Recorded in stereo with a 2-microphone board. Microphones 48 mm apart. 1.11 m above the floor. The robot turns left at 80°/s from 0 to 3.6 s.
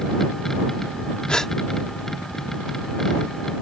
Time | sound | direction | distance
1.3 | a gasp | 20° left (ahead or behind) | ?